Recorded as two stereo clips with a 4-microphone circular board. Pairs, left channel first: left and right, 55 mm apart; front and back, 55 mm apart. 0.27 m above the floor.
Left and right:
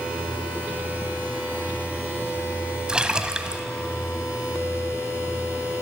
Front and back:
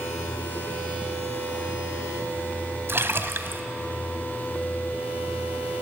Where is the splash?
160° right, 1.3 m.